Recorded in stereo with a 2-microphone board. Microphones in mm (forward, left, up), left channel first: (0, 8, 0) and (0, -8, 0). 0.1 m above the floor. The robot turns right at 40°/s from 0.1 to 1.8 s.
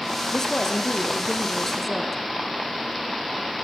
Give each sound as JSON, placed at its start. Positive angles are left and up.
{"t": 0.3, "sound": "a woman speaking", "azimuth_deg": 95, "distance_m": 1.5}